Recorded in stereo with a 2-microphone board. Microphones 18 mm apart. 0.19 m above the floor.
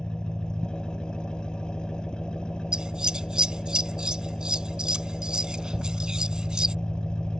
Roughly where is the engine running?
Left.